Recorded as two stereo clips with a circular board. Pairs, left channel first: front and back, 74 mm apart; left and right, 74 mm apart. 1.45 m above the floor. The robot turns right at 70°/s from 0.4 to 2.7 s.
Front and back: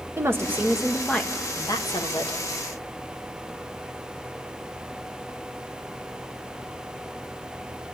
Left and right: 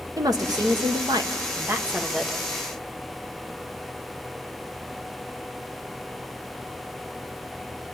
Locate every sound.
0.2 s a woman speaking: 125° right, 1.3 m; by 2.4 s 15° left, 1.3 m